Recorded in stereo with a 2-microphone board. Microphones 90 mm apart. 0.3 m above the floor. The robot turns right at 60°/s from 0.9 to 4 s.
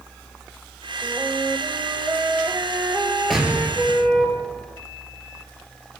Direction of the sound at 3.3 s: Straight behind.